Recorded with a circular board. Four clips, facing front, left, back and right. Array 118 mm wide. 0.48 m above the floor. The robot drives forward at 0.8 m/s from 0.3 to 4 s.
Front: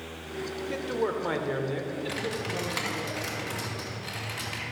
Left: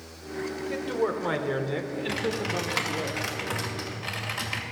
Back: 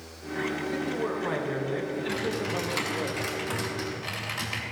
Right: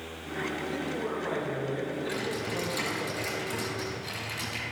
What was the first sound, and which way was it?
A man speaking, 45° left.